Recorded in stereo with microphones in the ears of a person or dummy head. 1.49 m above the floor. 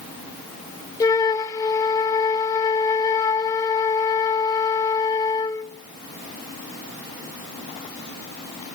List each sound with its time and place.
1.0 s a flute: 15° left (ahead or behind), 0.6 m